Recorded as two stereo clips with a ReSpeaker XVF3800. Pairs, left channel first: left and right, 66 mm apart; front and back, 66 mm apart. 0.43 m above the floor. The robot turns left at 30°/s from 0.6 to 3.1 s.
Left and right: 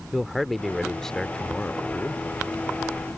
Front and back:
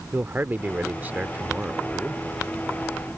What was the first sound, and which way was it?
A man speaking, 175° left.